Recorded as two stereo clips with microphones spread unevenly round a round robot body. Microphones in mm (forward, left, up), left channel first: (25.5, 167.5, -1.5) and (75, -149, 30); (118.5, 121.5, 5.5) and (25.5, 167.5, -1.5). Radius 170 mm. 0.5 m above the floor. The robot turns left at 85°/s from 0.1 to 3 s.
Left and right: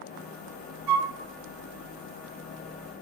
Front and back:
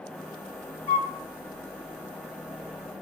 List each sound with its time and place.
0.9 s a flute: 65° right, 1.3 m; by 1.1 s 90° right, 1.3 m